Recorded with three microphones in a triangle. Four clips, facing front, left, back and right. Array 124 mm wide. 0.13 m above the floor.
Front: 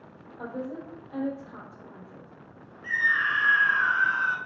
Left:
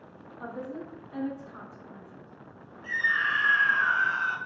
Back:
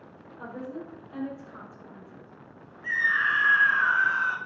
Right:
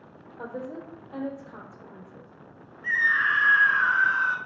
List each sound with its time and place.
0.4 s a woman speaking: 65° right, 3 m
2.8 s a scream: 105° right, 1.7 m